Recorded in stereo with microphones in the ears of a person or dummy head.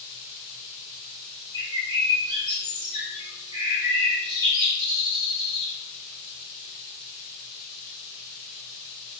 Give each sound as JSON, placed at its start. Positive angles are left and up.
{"t": 1.5, "sound": "a bird", "side_deg": -25, "distance_m": 0.8}